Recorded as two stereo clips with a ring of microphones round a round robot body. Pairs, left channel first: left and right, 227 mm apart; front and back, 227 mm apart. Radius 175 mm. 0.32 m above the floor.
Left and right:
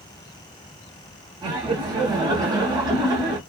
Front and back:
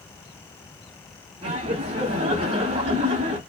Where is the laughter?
145° right, 1.1 m.